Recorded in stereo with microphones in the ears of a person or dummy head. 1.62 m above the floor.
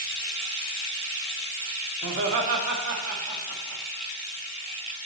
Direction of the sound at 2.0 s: 70° right (ahead or behind).